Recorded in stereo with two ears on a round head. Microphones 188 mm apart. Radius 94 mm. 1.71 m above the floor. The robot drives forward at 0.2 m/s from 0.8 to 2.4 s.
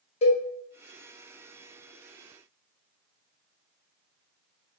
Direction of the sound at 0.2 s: 30° left (ahead or behind).